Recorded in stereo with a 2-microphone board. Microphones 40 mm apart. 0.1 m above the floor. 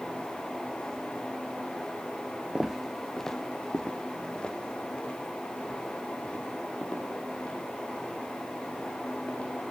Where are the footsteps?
20° right (ahead or behind), 0.8 m; by 9.5 s 30° left (ahead or behind), 10.5 m.